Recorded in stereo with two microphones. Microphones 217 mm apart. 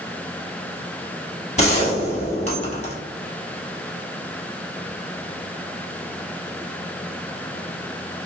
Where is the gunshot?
30° left (ahead or behind), 1.1 m.